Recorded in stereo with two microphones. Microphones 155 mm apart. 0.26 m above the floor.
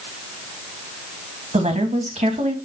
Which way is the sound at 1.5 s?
50° right (ahead or behind).